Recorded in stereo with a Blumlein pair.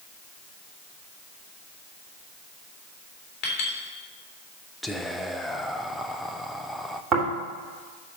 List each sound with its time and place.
3.4 s a clink: 30° left, 3.5 m
4.8 s whispering: straight ahead, 0.7 m
7.1 s snoring: 20° right, 3.5 m